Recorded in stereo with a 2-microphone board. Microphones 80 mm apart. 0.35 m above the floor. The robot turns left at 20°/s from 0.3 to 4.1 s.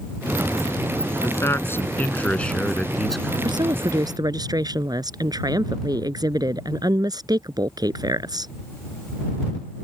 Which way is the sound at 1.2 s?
40° left.